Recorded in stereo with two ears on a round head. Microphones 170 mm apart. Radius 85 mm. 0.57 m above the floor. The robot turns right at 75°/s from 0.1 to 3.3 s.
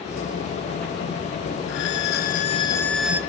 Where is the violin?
80° left, 1.4 m; by 3.2 s 165° right, 1.4 m.